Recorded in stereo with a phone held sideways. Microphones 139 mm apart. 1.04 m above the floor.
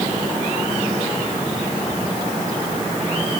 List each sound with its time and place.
Only background noise.